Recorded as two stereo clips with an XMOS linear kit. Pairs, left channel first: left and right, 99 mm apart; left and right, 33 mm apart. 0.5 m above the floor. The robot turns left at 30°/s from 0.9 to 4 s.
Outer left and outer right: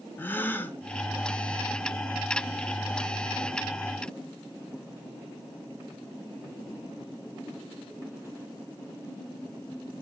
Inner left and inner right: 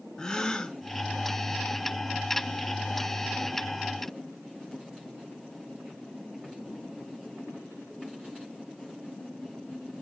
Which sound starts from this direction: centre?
A gasp, at 0.2 s.